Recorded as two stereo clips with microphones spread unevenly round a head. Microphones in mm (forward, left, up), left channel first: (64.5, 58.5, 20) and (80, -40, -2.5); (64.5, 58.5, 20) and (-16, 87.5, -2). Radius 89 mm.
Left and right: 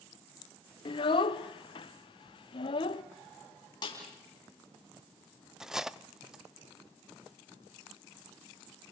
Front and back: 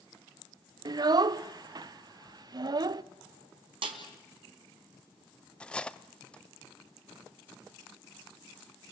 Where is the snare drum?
150° left, 3 m.